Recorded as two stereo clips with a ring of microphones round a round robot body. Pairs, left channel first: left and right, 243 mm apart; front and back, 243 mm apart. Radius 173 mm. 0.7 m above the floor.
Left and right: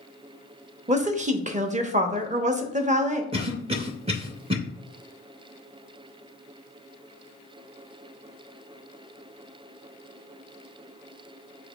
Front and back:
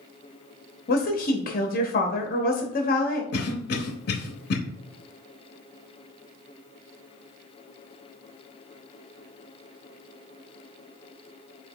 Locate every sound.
0.9 s a woman speaking: 40° right, 0.8 m
3.3 s a cough: 30° right, 0.7 m